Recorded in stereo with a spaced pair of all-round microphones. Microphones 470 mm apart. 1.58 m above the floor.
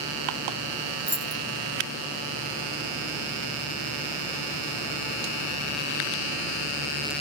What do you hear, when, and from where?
1.1 s keys jangling: 30° right (ahead or behind), 1.4 m